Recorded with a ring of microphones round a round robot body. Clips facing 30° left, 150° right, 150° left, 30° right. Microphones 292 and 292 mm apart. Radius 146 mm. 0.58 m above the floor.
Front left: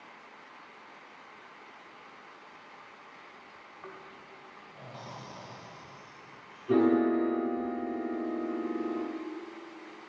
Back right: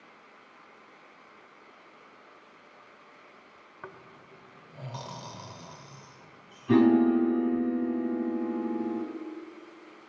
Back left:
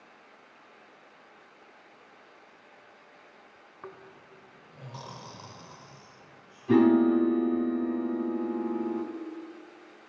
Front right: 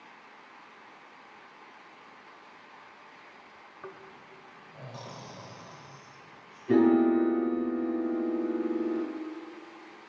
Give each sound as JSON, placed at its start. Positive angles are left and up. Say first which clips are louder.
{"t": 3.8, "sound": "snoring", "louder": "even, even", "azimuth_deg": -130, "distance_m": 1.3}
{"t": 6.7, "sound": "a piano", "louder": "back right 4 dB, back left 1 dB", "azimuth_deg": -145, "distance_m": 5.5}